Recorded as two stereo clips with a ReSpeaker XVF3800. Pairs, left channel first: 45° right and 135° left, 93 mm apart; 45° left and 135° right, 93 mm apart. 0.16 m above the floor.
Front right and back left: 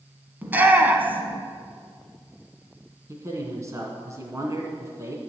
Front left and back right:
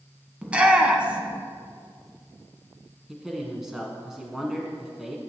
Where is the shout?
170° left, 1.1 m.